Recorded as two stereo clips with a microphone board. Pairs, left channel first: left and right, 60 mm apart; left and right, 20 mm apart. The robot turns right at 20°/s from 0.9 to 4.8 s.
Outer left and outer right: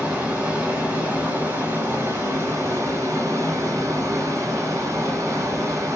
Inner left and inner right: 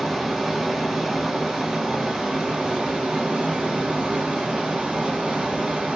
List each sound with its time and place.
0.0 s running water: 155° right, 1.3 m; by 6.0 s 75° right, 1.3 m